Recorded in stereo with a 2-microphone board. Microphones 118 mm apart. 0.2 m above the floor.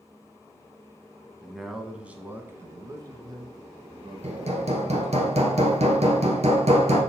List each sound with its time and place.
1.4 s a man speaking: 5° left (ahead or behind), 1.3 m; by 5.2 s 50° right (ahead or behind), 2.5 m
4.2 s hammering: 65° right (ahead or behind), 1.7 m